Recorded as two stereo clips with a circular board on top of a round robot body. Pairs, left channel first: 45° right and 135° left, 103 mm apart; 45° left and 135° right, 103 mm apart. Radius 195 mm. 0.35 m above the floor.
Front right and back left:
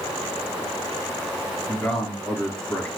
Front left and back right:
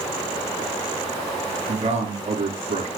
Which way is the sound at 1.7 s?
130° right.